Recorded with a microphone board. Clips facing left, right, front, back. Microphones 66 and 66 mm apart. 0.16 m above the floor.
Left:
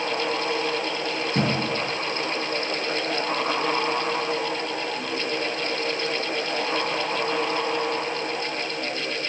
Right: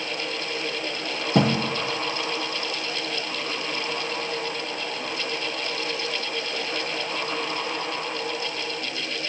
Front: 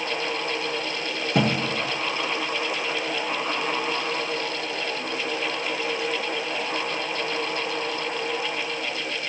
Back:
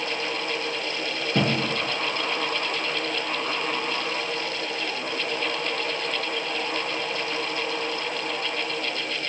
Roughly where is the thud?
Right.